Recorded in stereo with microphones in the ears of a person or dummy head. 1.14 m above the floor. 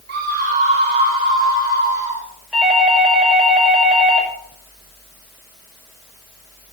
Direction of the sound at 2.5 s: Centre (ahead or behind).